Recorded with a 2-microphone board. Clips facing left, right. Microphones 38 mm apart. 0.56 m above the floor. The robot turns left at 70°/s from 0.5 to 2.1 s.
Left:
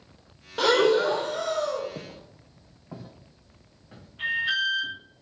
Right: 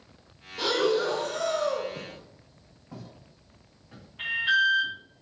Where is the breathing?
70° left, 0.6 m; by 1.9 s 20° right, 0.6 m.